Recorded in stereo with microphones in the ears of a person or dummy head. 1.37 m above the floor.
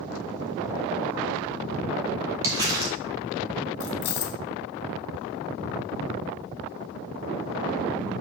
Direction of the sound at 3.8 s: 55° left (ahead or behind).